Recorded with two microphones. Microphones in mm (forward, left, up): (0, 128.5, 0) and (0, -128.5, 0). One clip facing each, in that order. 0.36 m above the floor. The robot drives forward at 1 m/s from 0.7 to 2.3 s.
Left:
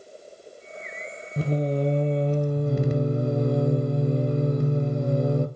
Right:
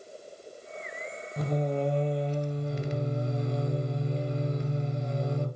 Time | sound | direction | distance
1.4 | singing | 30° left (ahead or behind) | 1.8 m